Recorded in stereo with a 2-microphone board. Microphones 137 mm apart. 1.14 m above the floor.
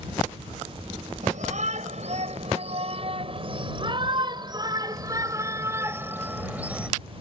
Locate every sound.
1.2 s a shout: 65° right (ahead or behind); by 6.9 s 10° right (ahead or behind)